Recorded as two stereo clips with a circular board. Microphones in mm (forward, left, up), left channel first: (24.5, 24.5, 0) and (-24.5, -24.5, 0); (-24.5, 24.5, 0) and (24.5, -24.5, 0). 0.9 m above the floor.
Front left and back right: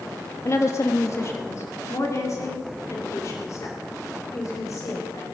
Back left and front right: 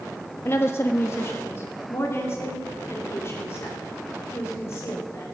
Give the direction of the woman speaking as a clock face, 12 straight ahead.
9 o'clock.